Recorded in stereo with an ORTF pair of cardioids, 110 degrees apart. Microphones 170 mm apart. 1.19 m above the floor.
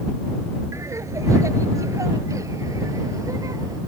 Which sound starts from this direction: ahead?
Laughter, at 0.7 s.